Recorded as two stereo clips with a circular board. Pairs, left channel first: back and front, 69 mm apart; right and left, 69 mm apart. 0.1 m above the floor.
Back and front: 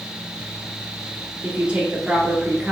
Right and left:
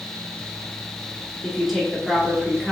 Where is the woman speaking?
5° left, 1.1 m.